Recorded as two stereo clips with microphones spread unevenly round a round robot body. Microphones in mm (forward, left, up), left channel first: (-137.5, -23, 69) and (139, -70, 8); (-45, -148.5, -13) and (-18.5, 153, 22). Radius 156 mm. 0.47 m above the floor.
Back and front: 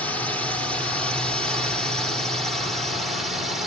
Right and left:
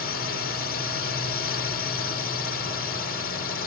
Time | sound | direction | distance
0.0 | a drone | 90° right | ?